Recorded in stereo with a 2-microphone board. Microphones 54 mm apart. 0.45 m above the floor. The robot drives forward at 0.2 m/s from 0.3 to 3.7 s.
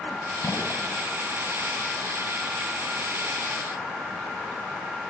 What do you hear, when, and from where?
0.4 s a gunshot: 65° left (ahead or behind), 2.5 m